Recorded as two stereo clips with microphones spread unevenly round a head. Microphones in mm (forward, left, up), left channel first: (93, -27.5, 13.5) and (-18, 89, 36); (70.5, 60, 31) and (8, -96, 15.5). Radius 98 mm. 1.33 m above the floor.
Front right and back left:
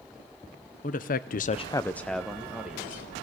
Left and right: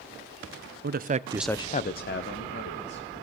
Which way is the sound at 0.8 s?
90° right.